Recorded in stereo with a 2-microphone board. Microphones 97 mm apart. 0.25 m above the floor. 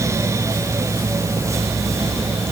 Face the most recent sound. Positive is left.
No sound to turn to.